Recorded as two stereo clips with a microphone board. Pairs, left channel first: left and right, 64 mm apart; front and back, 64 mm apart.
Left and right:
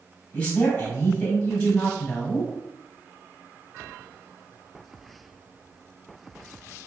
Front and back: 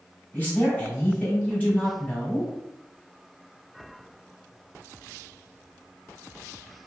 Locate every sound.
0.3 s a man speaking: 35° left, 1.6 m